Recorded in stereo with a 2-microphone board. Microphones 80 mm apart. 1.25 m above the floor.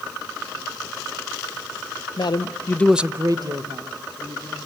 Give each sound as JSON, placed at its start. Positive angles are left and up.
{"t": 2.2, "sound": "a man speaking", "side_deg": 65, "distance_m": 1.2}